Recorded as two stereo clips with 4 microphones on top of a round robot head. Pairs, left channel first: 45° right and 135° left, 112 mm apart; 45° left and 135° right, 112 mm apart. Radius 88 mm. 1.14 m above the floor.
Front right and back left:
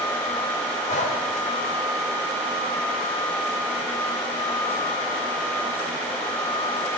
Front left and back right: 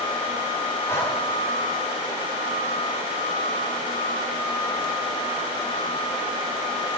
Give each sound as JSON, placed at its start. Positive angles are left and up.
{"t": 0.9, "sound": "breathing", "azimuth_deg": -25, "distance_m": 2.5}